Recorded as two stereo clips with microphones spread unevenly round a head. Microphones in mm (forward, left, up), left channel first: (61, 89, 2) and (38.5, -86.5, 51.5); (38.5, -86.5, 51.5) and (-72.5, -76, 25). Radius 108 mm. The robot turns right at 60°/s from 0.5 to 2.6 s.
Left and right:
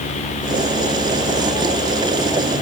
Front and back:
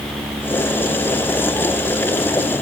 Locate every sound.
Only background noise.